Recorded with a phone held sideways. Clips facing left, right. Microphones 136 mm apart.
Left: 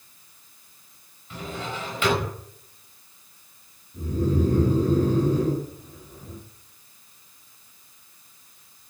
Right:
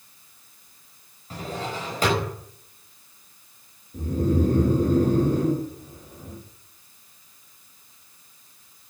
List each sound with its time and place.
1.3 s a drawer: 40° right (ahead or behind), 5 m
3.9 s snoring: 55° right (ahead or behind), 6.5 m